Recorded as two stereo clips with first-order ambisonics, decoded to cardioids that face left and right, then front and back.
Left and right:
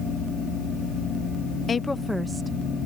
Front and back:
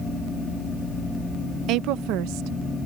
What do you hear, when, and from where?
1.7 s a woman speaking: 155° left; by 2.9 s 155° right